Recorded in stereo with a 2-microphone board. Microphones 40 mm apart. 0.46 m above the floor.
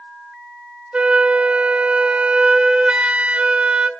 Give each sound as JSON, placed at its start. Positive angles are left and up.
{"t": 0.9, "sound": "a flute", "side_deg": -30, "distance_m": 1.9}